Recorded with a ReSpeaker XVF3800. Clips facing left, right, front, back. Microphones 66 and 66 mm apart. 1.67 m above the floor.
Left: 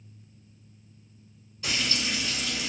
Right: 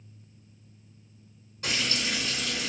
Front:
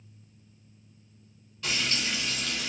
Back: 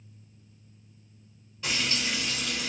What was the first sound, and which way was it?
Frying, 110° right.